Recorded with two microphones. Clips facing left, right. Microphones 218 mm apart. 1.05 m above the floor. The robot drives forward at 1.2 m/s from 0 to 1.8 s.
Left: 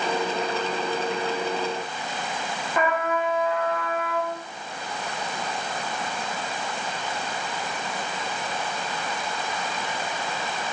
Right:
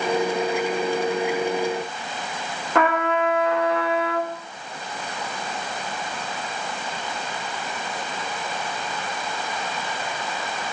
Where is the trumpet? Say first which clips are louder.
Right 4 dB; 75° right (ahead or behind), 1.5 m.